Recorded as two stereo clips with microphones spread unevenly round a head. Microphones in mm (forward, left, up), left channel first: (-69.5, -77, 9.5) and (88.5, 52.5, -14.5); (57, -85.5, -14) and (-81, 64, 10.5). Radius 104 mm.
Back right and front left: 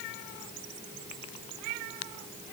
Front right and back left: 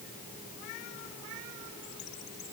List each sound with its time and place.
Only background noise.